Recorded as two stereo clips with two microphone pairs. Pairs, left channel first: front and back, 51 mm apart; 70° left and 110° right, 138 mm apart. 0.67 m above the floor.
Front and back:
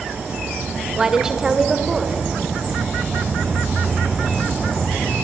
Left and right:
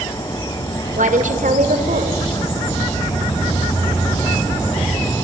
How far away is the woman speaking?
About 2.5 m.